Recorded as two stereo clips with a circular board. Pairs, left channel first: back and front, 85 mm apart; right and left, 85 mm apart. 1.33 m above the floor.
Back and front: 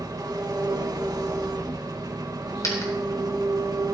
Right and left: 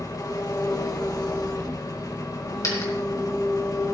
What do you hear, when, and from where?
0.0 s an engine running: 45° right, 1.2 m
2.6 s a dropped coin: 135° right, 3 m